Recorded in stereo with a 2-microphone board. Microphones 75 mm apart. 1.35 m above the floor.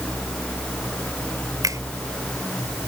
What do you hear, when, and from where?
1.6 s a finger snap: 50° right (ahead or behind)